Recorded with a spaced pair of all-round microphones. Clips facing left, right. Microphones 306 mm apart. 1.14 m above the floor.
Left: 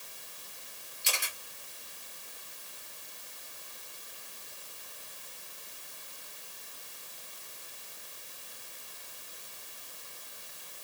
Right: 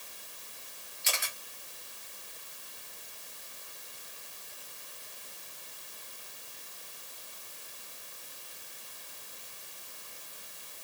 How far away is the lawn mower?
No lawn mower in this recording.